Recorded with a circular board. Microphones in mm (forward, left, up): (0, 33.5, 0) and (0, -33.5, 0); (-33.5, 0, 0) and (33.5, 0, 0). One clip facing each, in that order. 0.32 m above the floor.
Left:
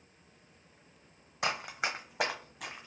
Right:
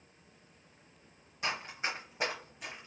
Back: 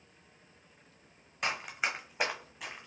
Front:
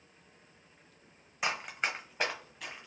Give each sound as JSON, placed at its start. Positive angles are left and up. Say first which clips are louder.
{"t": 1.4, "sound": "running footsteps", "louder": "left 3 dB, even", "azimuth_deg": 85, "distance_m": 1.0}